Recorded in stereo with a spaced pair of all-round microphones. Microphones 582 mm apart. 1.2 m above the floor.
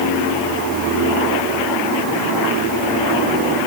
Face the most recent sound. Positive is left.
No sound to turn to.